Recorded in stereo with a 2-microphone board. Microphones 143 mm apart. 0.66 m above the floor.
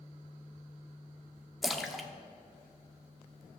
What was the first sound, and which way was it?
A splash, centre (ahead or behind).